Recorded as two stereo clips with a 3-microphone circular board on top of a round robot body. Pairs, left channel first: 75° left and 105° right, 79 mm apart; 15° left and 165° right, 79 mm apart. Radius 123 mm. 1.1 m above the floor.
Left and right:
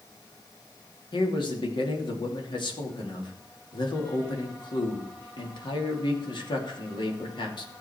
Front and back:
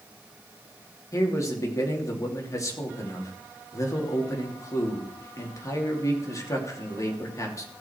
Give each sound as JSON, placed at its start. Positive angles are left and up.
{"t": 1.1, "sound": "a man speaking", "azimuth_deg": 65, "distance_m": 3.0}